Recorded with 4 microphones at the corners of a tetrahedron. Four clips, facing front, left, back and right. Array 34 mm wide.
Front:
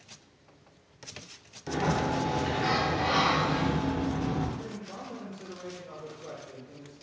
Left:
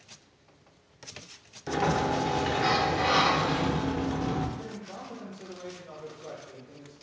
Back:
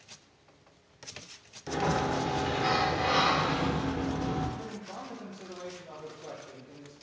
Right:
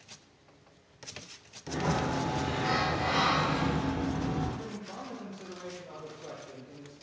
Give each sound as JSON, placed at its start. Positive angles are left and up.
{"t": 1.7, "sound": "a sliding door", "azimuth_deg": 90, "distance_m": 0.5}
{"t": 4.6, "sound": "a man speaking", "azimuth_deg": -130, "distance_m": 1.7}